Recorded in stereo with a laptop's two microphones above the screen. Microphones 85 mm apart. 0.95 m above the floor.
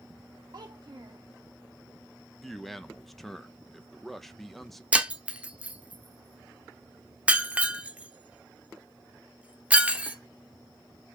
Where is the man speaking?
Centre (ahead or behind), 0.7 m.